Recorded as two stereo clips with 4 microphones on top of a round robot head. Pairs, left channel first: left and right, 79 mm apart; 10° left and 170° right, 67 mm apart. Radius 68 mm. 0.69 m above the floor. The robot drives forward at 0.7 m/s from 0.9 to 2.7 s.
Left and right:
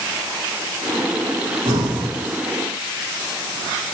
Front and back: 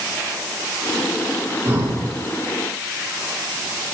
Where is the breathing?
105° right, 2 m; by 2.1 s 115° right, 2 m.